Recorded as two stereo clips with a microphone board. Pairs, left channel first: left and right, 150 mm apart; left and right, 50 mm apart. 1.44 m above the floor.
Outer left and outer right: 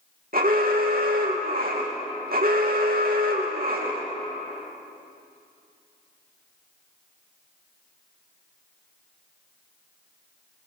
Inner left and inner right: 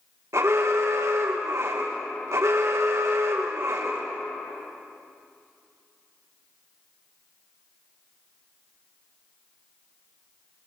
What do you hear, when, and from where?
0.3 s an alarm: 70° right (ahead or behind), 3 m